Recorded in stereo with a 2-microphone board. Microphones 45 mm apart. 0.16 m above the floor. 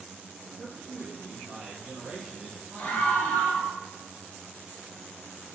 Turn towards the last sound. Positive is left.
turn(degrees=35)  # may be behind; listen again after turning